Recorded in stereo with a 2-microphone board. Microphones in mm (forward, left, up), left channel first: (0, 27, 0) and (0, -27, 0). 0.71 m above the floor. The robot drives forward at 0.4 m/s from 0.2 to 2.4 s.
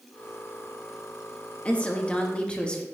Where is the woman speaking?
20° left (ahead or behind), 0.6 m; by 2.9 s 15° left (ahead or behind), 0.7 m.